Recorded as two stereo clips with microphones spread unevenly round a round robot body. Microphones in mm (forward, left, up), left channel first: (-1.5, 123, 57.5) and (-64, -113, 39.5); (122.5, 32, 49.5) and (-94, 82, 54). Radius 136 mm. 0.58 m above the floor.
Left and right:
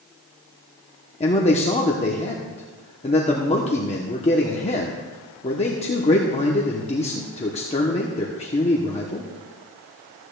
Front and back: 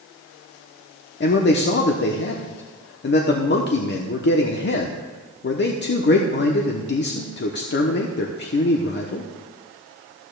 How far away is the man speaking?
About 1.0 m.